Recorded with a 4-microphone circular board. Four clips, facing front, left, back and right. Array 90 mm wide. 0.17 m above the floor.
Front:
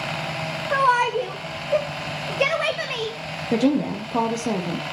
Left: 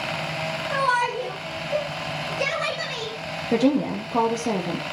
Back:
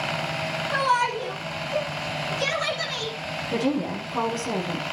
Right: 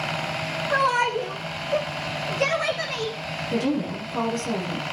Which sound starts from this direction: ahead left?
A woman speaking, at 3.5 s.